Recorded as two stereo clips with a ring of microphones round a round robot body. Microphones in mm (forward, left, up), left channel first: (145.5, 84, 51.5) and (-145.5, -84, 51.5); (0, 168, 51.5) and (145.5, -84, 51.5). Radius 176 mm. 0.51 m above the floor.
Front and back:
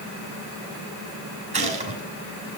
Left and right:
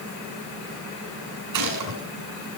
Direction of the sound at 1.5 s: 80° right.